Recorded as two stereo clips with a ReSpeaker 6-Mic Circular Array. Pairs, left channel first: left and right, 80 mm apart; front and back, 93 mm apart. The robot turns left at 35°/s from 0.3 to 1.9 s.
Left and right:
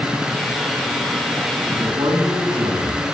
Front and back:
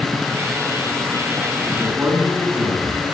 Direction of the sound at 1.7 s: 95° right.